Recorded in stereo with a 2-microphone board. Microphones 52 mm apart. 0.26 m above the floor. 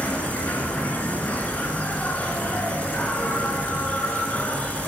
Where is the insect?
25° left (ahead or behind), 1.4 m.